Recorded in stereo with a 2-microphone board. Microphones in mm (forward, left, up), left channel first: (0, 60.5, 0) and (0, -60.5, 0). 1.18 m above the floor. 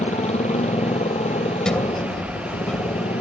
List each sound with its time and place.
0.0 s a motorcycle: 65° left (ahead or behind)
1.6 s a sliding door: 5° left (ahead or behind)